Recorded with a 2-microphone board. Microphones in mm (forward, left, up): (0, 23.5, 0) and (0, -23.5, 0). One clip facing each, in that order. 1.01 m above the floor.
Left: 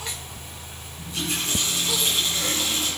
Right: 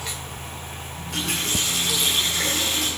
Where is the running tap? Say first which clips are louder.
Right 1 dB; 90° right, 9 m.